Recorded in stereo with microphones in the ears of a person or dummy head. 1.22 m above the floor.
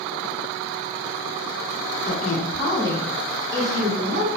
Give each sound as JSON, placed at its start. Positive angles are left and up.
{"t": 2.0, "sound": "a woman speaking", "side_deg": 45, "distance_m": 0.8}